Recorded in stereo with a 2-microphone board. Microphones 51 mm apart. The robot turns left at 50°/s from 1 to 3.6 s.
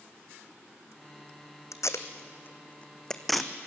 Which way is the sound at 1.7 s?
85° left.